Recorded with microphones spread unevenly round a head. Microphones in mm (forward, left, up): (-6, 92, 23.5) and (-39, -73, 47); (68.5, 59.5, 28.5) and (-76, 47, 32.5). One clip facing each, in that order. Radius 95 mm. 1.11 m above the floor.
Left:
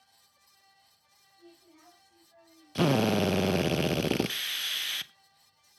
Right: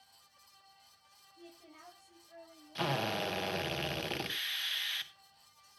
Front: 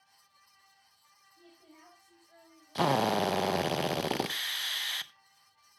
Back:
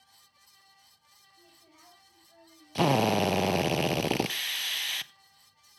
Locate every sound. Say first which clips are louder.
1.4 s a woman speaking: right 1 dB, front 4 dB; 60° right, 7 m; by 3.8 s 65° right, 5.5 m
2.8 s a drill: left 11 dB, back 3 dB; 110° left, 0.8 m